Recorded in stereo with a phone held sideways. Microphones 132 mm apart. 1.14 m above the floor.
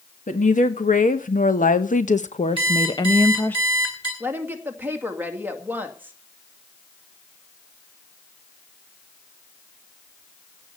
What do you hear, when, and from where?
0.3 s a woman speaking: 70° left (ahead or behind), 1.7 m; by 3.6 s 15° left (ahead or behind), 1.0 m
2.6 s an alarm clock: 40° left (ahead or behind), 10 m
4.2 s a woman speaking: 15° right (ahead or behind), 2 m